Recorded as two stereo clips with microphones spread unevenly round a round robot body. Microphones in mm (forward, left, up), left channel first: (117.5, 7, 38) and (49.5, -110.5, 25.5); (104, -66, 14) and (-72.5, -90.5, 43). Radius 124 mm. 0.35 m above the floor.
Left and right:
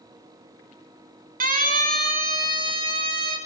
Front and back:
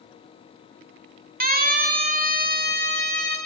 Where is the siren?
135° right, 3.5 m.